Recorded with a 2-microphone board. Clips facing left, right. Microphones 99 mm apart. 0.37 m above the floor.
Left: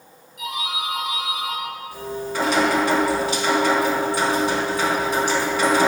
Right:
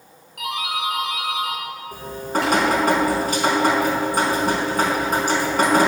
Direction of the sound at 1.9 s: 50° right (ahead or behind).